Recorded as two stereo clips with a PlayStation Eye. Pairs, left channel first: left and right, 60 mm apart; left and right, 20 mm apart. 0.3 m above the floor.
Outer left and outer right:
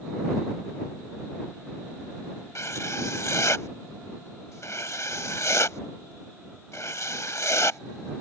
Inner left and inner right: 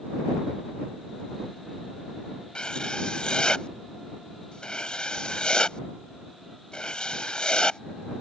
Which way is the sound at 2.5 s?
55° left (ahead or behind).